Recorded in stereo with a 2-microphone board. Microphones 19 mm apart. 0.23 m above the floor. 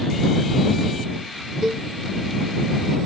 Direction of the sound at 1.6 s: 55° right (ahead or behind).